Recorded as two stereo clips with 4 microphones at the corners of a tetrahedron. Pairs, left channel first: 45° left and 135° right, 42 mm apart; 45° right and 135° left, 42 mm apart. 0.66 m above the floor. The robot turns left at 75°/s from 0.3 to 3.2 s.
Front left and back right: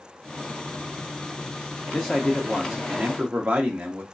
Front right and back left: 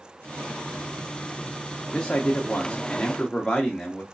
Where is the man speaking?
15° right, 0.6 m; by 4.0 s 110° right, 0.6 m.